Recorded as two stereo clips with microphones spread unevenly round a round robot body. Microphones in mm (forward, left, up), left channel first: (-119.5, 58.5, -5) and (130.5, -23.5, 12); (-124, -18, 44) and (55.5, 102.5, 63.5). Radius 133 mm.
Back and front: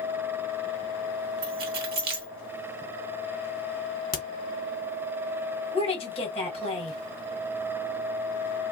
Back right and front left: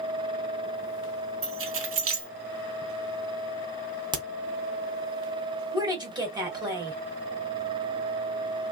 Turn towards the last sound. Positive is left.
turn(degrees=105)